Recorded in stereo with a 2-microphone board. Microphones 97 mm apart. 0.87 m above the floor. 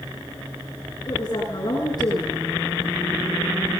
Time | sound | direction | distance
1.1 | a woman speaking | 45° left (ahead or behind) | 9 m